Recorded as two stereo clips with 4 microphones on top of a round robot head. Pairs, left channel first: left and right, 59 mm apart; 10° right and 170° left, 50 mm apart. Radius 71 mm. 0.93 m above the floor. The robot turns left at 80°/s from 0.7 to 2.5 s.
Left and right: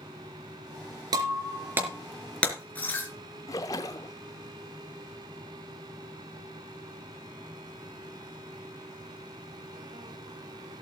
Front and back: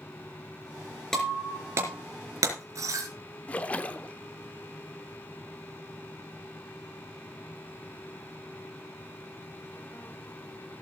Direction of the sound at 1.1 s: 95° right.